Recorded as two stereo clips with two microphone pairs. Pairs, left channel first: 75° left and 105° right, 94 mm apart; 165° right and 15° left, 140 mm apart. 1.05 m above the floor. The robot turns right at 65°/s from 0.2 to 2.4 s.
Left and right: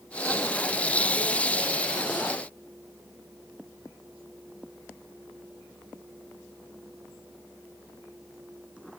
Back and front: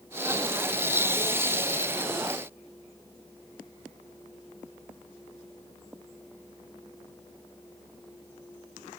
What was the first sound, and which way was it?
Only background noise.